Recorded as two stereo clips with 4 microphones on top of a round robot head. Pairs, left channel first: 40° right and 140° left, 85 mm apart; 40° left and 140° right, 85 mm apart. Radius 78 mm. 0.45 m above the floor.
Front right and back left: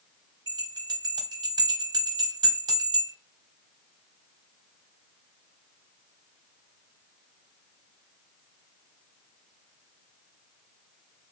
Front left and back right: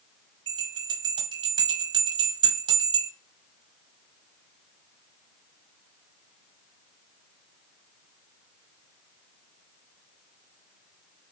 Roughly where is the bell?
Behind.